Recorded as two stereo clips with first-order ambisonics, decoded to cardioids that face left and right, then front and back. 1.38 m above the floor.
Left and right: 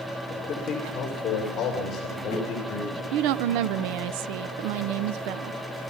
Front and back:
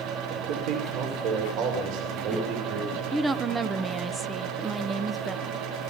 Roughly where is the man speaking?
Behind.